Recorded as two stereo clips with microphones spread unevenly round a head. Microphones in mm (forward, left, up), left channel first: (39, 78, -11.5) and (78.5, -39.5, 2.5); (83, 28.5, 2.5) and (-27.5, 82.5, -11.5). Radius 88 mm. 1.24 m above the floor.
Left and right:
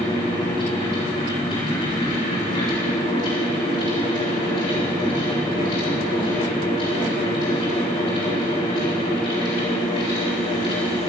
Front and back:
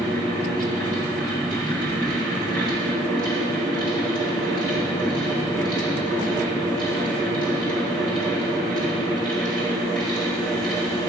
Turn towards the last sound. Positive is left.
turn(degrees=160)